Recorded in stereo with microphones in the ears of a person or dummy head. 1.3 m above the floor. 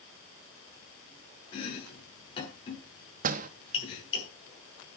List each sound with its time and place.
1.5 s chopping: 30° left (ahead or behind), 8 m
3.2 s a door slam: 45° right (ahead or behind), 1.1 m